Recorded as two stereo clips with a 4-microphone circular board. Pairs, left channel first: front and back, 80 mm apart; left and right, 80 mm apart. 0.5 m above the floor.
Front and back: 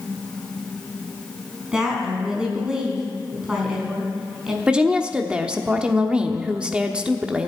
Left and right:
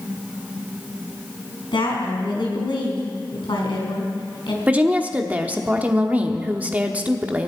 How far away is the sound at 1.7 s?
About 4.5 m.